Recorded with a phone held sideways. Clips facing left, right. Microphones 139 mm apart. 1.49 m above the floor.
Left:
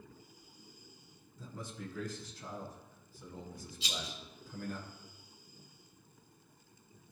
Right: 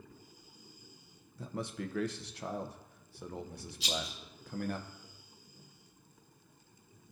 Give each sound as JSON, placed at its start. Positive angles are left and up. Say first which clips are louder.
{"t": 1.4, "sound": "a man speaking", "louder": "right 6 dB", "side_deg": -65, "distance_m": 0.8}
{"t": 3.8, "sound": "a rattle", "louder": "right 5 dB", "side_deg": -70, "distance_m": 2.0}